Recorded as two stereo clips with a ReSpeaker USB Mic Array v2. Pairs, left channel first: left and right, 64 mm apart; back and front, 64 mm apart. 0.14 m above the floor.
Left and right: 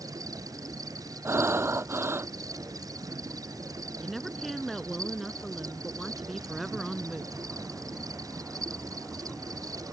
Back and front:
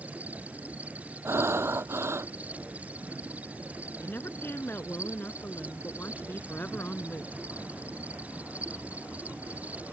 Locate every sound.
0.0 s an insect: 65° right
1.2 s breathing: 40° right
4.0 s a woman speaking: straight behind